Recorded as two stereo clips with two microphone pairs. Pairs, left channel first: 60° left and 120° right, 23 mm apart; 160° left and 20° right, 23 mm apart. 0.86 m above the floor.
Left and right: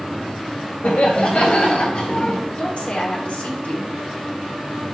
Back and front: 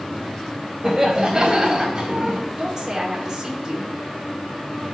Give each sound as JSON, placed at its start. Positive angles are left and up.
{"t": 0.8, "sound": "laughter", "azimuth_deg": 50, "distance_m": 4.0}
{"t": 2.5, "sound": "a woman speaking", "azimuth_deg": 40, "distance_m": 3.0}